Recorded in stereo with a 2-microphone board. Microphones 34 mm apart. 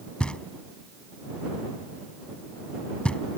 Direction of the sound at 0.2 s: 35° left (ahead or behind).